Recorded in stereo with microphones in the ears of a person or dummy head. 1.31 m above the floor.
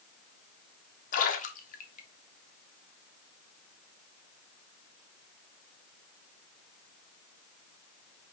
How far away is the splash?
About 0.6 m.